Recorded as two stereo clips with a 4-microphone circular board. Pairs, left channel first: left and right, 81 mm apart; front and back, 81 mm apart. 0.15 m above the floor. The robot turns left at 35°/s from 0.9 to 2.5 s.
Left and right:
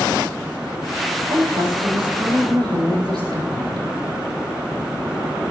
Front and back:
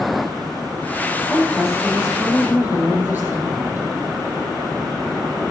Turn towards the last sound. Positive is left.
turn(degrees=-115)